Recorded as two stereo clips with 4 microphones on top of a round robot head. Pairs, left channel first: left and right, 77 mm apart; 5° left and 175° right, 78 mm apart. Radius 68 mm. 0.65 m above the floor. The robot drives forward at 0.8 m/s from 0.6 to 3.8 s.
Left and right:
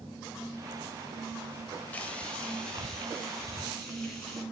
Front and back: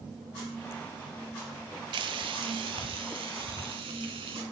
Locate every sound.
1.9 s frying: 170° left, 0.6 m; by 4.4 s 175° left, 2 m